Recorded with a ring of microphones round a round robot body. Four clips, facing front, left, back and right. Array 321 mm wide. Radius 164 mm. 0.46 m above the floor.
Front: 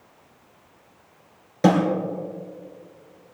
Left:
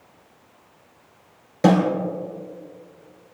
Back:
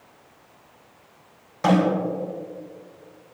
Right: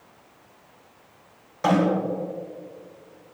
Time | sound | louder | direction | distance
1.6 | a snare drum | left 4 dB, front 1 dB | 45° left | 3.5 m